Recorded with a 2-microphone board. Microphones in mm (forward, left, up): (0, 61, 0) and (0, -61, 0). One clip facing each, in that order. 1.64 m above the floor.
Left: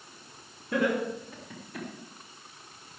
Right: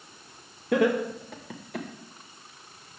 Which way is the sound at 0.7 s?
85° right.